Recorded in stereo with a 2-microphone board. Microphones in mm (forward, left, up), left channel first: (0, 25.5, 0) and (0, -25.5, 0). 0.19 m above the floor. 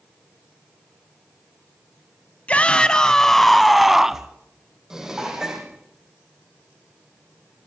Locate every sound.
2.5 s a shout: 30° left (ahead or behind), 1.6 m; by 4.3 s 10° right (ahead or behind), 1.8 m
4.9 s dishes clattering: 10° right (ahead or behind), 6.5 m